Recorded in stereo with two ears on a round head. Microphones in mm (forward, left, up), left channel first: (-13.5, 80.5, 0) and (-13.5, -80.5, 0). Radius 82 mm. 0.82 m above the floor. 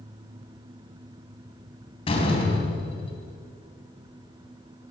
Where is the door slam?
30° left (ahead or behind), 3.5 m.